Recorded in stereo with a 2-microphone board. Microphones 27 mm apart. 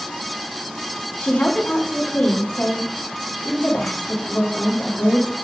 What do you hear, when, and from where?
1.2 s a woman speaking: 80° left, 1.7 m